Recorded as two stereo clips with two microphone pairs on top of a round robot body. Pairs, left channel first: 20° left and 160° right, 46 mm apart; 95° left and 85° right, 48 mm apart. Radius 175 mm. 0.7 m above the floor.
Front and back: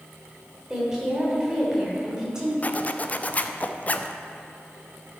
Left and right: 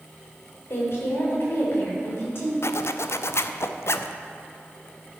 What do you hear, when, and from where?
0.7 s a woman speaking: 125° left, 3.5 m
2.6 s a zipper: 80° left, 0.6 m